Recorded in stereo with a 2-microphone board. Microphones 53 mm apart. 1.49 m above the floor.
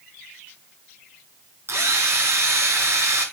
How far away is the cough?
I don't hear a cough.